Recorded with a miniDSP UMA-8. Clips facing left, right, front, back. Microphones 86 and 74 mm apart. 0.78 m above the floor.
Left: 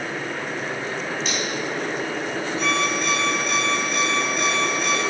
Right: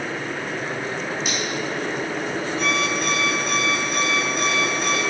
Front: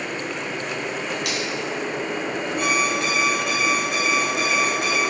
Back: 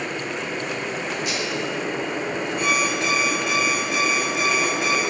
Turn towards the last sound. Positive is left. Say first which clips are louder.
# left 1 dB, front 1 dB
turn(degrees=-45)